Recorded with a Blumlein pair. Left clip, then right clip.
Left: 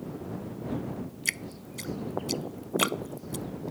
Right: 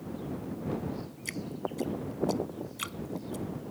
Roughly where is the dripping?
Ahead left.